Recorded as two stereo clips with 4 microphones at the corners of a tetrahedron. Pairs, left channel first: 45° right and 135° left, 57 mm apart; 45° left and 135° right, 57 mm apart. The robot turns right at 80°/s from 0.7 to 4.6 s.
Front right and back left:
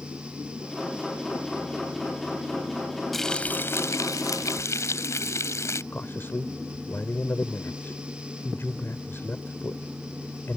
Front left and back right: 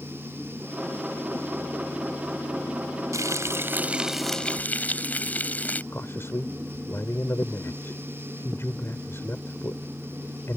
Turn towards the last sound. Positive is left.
turn(degrees=5)